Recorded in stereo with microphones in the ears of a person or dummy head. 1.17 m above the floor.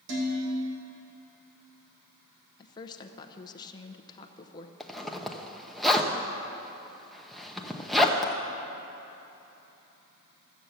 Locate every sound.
0.1 s dishes clattering: 90° right, 3.5 m
2.6 s a woman speaking: 20° left (ahead or behind), 0.8 m
4.8 s a zipper: centre (ahead or behind), 0.8 m